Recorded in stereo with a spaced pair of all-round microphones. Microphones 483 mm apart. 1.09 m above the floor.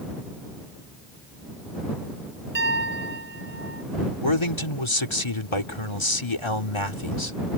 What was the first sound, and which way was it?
A piano, 25° left (ahead or behind).